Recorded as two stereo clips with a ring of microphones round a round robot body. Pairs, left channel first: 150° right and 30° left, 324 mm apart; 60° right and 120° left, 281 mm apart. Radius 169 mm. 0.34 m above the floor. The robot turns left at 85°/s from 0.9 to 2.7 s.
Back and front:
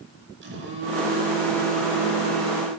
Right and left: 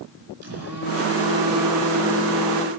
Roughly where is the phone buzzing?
Left.